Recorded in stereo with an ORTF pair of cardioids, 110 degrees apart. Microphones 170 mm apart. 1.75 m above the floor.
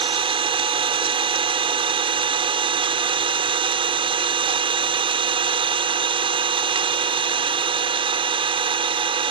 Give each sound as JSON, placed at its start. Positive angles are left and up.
{"t": 0.0, "sound": "an engine running", "azimuth_deg": -35}